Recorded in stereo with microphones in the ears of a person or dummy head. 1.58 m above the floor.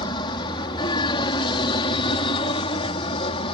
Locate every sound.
0.0 s an aircraft: 25° left (ahead or behind); by 3.5 s 30° left (ahead or behind)